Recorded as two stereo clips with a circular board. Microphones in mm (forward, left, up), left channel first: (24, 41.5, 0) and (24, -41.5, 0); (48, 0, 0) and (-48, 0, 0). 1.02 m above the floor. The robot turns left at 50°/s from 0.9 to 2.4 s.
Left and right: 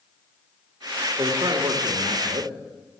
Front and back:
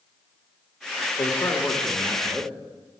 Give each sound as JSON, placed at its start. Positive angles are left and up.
{"t": 1.2, "sound": "a man speaking", "azimuth_deg": -40, "distance_m": 2.5}